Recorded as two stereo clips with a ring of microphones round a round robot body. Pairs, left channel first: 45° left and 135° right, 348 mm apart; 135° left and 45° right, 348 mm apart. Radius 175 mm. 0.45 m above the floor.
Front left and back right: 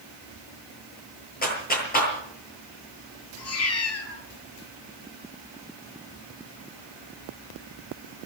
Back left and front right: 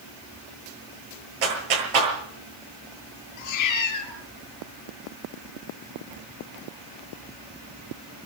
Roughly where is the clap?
Ahead.